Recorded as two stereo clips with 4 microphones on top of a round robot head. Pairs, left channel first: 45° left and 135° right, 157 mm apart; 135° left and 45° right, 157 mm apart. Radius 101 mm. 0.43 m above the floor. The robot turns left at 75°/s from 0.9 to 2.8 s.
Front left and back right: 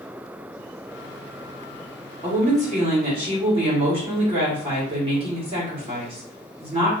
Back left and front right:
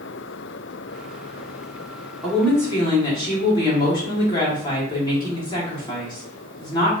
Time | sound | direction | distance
2.2 | a woman speaking | 130° right | 1.9 m